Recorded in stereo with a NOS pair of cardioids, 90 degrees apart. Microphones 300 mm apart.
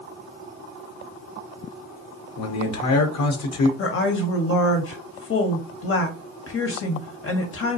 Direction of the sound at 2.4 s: 65° left.